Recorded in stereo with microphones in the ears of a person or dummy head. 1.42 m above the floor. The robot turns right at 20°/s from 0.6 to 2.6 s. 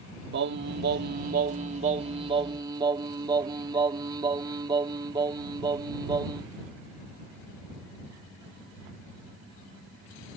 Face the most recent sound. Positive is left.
turn(degrees=-25)